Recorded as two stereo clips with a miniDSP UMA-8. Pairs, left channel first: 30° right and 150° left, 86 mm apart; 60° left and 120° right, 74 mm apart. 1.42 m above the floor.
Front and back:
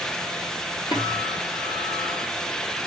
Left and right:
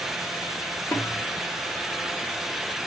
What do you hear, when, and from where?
0.9 s a guitar: 5° right, 5 m